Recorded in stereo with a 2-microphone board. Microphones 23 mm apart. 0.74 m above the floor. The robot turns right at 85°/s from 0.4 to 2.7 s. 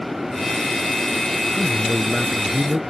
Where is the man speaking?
140° left; by 2.8 s 120° right.